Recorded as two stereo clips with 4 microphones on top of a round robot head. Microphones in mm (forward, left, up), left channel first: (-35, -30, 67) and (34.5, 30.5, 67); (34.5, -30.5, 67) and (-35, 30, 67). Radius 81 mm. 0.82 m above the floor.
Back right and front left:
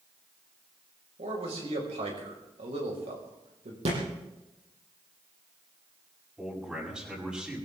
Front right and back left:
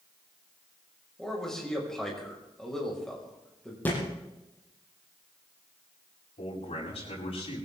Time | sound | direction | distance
1.2 | a man speaking | 45° left | 5 m
3.9 | a thud | 30° left | 6 m
6.4 | a man speaking | 40° right | 7.5 m